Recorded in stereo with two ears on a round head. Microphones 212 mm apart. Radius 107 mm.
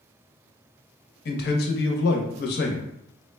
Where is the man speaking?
40° left (ahead or behind), 0.6 m.